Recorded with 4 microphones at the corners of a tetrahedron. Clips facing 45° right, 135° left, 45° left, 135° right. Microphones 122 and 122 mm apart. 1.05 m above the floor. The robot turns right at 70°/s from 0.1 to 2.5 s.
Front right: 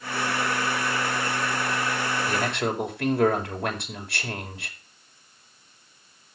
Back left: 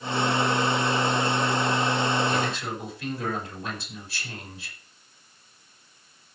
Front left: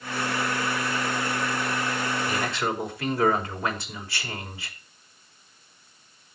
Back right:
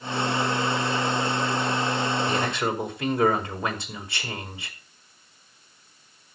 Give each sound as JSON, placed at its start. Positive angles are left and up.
{"t": 2.3, "sound": "a man speaking", "azimuth_deg": -85, "distance_m": 4.5}